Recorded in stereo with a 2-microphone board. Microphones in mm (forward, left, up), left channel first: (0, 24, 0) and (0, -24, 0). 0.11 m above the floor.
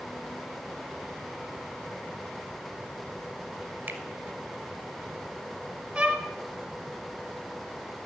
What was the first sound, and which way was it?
A finger snap, 35° right (ahead or behind).